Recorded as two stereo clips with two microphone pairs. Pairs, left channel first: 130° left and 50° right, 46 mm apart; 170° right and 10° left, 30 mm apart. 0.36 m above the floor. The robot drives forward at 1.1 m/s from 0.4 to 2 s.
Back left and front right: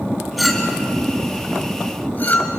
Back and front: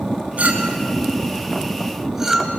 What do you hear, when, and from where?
0.4 s a clink: 40° left, 2.5 m; by 2.6 s 90° left, 1.6 m